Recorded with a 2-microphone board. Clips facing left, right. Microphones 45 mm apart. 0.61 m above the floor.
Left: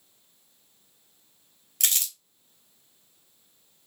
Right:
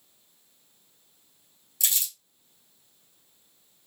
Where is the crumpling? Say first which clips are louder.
Left 2 dB; 55° left (ahead or behind), 0.8 m.